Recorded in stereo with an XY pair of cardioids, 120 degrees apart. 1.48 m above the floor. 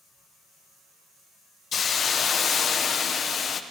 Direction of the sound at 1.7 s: 45° left.